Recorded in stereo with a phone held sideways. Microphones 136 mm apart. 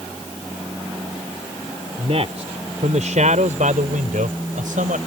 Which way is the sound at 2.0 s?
50° right (ahead or behind).